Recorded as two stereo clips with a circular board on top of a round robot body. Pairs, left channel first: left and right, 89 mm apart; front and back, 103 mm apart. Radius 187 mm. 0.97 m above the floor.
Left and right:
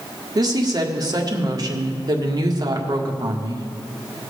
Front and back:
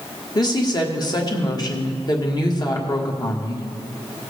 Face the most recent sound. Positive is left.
turn(degrees=-45)